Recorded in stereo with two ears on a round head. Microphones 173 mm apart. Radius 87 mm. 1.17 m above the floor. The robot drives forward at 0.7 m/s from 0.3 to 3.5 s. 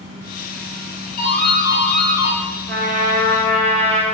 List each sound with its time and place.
1.2 s a doorbell: 50° left (ahead or behind), 2.0 m; by 2.4 s 35° left (ahead or behind), 2.5 m
2.7 s a trumpet: 60° right (ahead or behind), 0.7 m; by 4.0 s 30° right (ahead or behind), 1.1 m